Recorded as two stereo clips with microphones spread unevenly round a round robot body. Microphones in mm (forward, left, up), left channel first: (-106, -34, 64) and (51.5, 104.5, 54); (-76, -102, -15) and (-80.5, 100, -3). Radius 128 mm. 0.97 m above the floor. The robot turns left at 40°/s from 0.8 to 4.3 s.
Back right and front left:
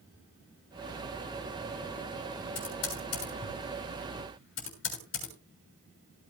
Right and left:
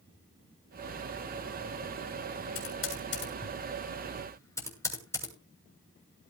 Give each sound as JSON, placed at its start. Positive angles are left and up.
{"t": 2.5, "sound": "typing on a keyboard", "azimuth_deg": -95, "distance_m": 7.0}